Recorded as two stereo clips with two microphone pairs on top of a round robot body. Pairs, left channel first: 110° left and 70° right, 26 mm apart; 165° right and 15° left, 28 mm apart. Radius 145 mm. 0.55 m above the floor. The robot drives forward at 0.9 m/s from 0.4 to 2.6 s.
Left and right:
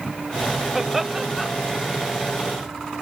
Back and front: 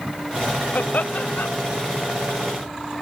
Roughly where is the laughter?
Behind right.